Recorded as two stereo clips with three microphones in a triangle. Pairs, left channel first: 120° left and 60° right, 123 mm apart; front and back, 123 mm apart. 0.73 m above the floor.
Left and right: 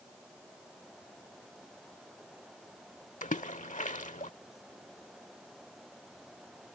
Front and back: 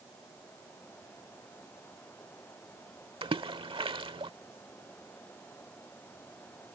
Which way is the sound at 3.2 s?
135° left.